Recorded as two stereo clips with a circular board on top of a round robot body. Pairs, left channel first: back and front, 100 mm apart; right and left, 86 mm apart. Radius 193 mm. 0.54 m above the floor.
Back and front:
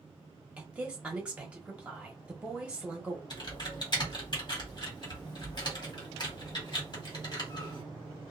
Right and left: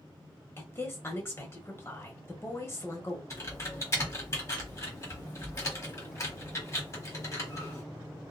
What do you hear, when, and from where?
0.6 s a woman speaking: 70° right, 1.3 m
3.3 s typing on a keyboard: 145° right, 1.5 m